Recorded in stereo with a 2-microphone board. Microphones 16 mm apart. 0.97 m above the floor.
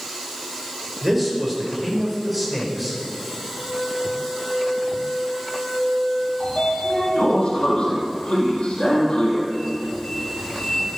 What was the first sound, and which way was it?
A man speaking, 5° right (ahead or behind).